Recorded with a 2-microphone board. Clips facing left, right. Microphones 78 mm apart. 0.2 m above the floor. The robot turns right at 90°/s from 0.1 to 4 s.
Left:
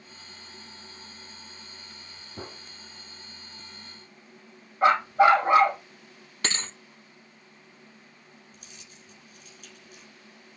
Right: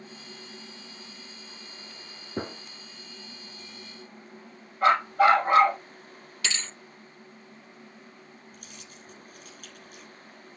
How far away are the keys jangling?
About 3.5 m.